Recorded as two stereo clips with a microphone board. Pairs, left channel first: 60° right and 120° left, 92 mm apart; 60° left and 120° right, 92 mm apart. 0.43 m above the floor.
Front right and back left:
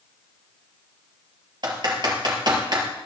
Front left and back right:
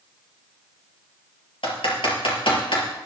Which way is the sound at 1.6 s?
85° left.